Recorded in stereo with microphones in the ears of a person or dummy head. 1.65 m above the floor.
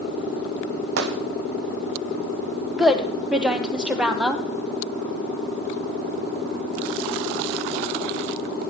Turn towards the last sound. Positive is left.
turn(degrees=0)  # may be behind; listen again after turning